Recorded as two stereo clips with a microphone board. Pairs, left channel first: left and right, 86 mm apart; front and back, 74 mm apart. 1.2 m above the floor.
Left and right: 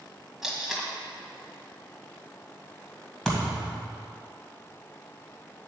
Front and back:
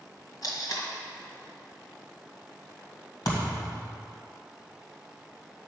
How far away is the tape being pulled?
About 1.7 m.